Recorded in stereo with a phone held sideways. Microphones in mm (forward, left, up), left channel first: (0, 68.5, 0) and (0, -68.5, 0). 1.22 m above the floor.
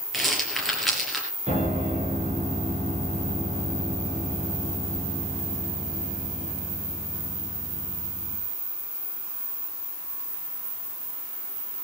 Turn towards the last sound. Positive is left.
turn(degrees=-50)  # may be behind; listen again after turning